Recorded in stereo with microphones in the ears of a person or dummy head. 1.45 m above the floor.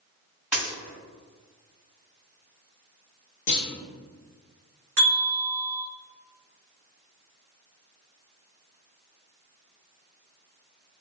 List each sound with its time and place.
0.5 s a dropped coin: 5° right (ahead or behind), 1.5 m
3.5 s a clunk: 60° left (ahead or behind), 0.9 m
5.0 s a bell: 60° right (ahead or behind), 1.5 m